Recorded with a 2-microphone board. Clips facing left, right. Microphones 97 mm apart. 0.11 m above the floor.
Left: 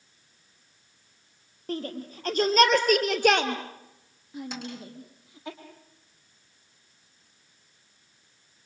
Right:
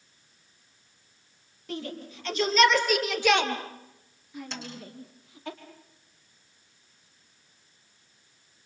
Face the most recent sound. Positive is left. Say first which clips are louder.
# left 2 dB
turn(degrees=10)  # may be behind; listen again after turning